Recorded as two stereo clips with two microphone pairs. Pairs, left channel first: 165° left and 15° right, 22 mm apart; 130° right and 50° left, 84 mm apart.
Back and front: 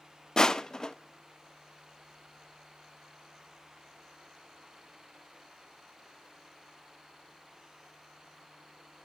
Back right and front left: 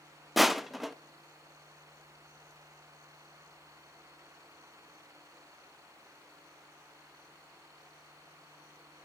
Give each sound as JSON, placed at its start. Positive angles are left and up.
{"t": 0.4, "sound": "crushing", "azimuth_deg": 135, "distance_m": 0.7}